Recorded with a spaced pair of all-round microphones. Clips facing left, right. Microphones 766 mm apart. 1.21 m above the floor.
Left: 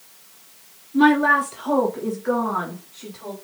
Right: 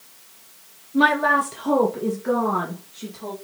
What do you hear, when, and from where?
0.9 s a woman speaking: 15° right (ahead or behind), 1.1 m; by 3.3 s 65° right (ahead or behind), 3 m